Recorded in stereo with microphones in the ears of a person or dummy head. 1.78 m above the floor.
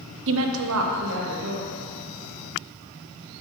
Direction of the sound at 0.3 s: 60° right (ahead or behind).